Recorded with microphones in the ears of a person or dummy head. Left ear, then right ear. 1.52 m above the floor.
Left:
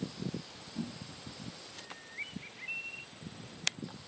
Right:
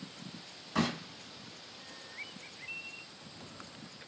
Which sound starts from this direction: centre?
A bird, at 1.8 s.